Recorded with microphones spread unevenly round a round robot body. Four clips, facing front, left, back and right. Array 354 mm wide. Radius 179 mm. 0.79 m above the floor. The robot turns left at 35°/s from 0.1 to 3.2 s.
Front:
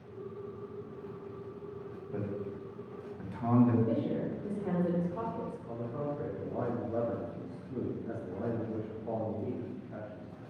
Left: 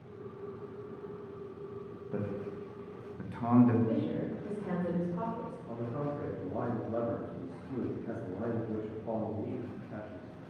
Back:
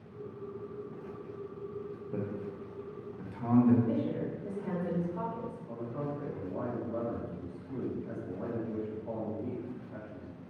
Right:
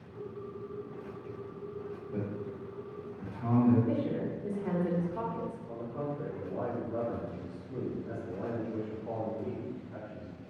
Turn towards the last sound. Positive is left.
turn(degrees=60)